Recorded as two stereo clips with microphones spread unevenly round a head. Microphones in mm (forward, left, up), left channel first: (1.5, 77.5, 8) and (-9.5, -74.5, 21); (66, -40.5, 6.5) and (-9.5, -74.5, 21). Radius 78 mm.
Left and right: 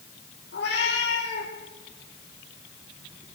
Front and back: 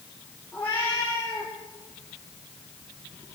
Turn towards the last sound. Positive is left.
turn(degrees=105)